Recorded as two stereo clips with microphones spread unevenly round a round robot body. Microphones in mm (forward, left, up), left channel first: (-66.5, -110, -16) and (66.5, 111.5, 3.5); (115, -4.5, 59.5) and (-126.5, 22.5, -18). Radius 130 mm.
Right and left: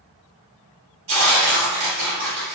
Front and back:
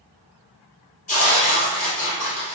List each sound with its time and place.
1.1 s tearing paper: 50° left, 1.9 m